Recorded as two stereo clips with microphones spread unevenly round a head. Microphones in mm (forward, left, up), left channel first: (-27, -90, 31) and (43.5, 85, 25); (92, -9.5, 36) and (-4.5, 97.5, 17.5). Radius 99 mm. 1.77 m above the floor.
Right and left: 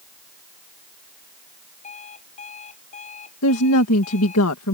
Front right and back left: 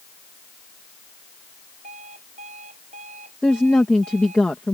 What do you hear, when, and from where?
1.8 s an alarm clock: 170° right
3.4 s a woman speaking: 130° right